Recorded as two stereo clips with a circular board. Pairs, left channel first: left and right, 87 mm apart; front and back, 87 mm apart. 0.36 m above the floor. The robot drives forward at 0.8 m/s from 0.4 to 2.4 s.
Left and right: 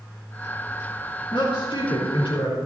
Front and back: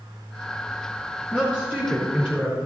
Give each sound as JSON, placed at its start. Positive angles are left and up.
{"t": 1.3, "sound": "a woman speaking", "azimuth_deg": 100, "distance_m": 4.0}